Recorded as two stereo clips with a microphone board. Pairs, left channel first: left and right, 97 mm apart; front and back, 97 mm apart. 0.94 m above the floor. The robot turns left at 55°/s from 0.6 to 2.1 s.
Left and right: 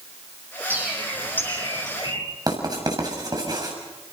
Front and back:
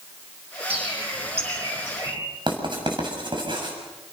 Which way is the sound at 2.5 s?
140° right.